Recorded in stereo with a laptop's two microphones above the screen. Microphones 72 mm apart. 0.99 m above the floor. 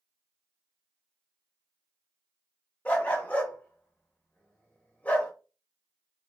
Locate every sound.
2.9 s a dog barking: 20° left (ahead or behind), 0.8 m